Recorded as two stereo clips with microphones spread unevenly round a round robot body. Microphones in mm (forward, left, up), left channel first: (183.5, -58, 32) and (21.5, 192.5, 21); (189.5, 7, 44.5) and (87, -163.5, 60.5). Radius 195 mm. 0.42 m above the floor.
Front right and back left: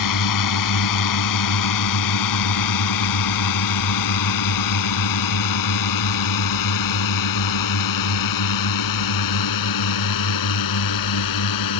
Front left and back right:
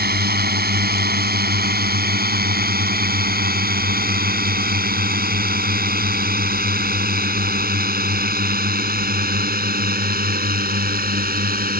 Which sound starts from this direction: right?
A drone, at 0.0 s.